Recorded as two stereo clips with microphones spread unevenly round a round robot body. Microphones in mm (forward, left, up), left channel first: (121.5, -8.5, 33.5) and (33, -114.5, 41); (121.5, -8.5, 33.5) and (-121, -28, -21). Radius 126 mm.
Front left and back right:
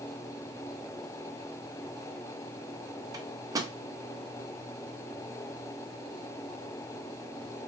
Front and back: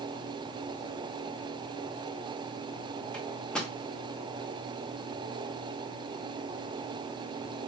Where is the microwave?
110° right, 0.5 m.